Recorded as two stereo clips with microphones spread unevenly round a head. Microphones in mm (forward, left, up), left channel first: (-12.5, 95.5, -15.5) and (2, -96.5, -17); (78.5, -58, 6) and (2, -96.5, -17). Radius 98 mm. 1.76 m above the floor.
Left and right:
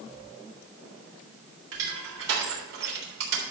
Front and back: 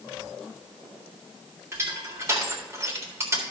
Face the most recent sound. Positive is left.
turn(degrees=-90)